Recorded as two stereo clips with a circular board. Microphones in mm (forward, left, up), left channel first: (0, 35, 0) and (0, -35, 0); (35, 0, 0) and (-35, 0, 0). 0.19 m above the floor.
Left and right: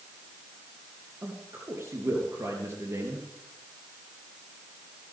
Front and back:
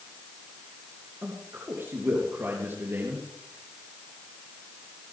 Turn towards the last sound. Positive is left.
turn(degrees=-130)